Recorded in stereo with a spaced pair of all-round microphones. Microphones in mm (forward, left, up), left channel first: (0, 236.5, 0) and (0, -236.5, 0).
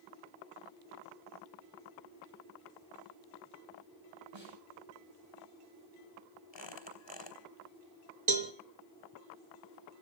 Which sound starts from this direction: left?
A squeak, at 6.5 s.